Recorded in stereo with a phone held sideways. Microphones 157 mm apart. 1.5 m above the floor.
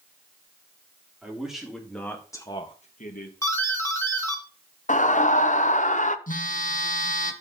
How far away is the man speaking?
About 3 m.